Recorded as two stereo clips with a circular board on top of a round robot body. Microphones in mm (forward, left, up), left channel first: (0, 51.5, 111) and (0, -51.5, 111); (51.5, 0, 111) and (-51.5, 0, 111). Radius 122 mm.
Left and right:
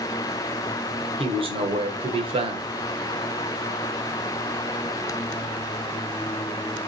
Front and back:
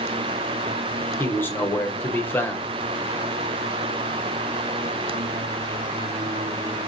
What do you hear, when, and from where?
1.2 s a man speaking: 65° right, 1.9 m